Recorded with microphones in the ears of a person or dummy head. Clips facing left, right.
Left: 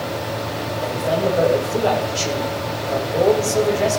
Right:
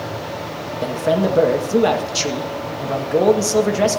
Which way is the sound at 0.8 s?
70° right (ahead or behind).